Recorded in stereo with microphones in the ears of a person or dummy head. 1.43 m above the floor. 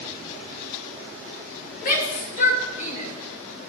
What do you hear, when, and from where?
1.8 s a shout: 50° left (ahead or behind), 2 m; by 3.1 s 45° left (ahead or behind), 3 m